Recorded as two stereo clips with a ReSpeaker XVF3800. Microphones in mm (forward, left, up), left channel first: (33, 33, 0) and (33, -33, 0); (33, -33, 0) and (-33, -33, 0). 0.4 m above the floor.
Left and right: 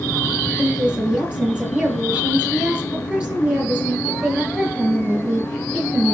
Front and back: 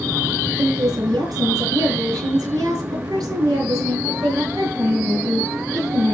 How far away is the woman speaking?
About 7 m.